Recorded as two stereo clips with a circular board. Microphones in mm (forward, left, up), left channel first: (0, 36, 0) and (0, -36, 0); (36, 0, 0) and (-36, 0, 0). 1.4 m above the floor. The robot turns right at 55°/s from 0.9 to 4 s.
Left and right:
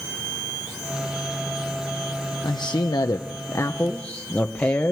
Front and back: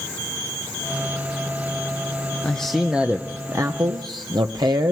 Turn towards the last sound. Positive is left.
turn(degrees=160)